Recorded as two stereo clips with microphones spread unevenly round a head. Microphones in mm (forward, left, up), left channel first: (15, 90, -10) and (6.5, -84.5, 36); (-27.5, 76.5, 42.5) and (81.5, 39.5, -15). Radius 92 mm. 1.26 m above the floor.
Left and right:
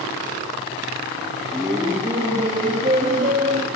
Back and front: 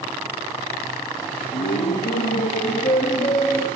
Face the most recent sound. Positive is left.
turn(degrees=-135)